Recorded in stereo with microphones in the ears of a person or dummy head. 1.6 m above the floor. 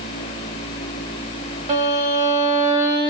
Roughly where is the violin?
Right.